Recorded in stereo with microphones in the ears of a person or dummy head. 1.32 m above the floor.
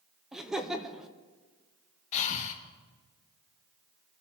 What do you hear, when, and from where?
0.3 s laughter: 5° right (ahead or behind), 0.7 m
2.1 s breathing: 35° left (ahead or behind), 1.6 m